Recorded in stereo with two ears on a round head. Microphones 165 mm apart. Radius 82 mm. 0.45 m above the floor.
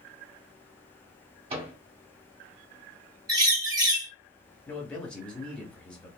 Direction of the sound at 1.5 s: 30° right (ahead or behind).